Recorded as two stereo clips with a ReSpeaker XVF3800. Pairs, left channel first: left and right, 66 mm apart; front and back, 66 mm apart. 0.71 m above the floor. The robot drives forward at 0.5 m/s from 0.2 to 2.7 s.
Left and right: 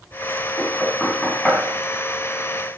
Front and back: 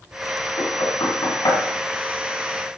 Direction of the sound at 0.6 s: 5° left.